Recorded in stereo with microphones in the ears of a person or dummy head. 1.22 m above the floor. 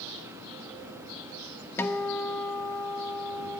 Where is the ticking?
I don't hear ticking.